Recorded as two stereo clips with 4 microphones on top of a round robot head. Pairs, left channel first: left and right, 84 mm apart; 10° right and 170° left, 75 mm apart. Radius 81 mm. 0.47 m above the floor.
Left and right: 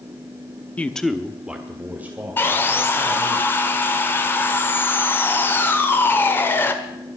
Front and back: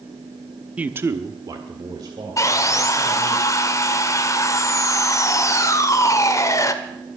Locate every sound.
0.8 s a man speaking: 125° left, 1.0 m; by 3.4 s 155° right, 4 m
2.4 s sawing: 30° left, 1.4 m